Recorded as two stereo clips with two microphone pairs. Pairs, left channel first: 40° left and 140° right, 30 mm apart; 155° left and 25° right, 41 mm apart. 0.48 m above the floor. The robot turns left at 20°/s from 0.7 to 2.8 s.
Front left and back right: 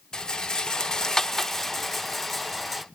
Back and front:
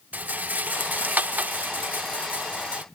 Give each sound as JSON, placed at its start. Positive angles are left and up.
{"t": 0.1, "sound": "a rattle", "azimuth_deg": -15, "distance_m": 0.6}